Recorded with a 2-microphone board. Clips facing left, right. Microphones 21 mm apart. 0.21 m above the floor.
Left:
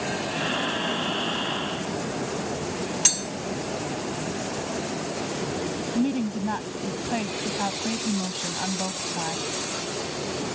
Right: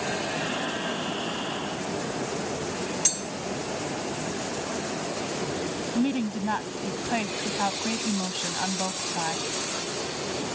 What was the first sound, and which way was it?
Breathing, 25° left (ahead or behind).